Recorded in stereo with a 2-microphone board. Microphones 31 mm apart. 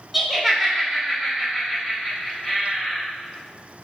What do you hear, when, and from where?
0.1 s laughter: 5° right (ahead or behind), 1.0 m; by 3.0 s 15° right (ahead or behind), 2.5 m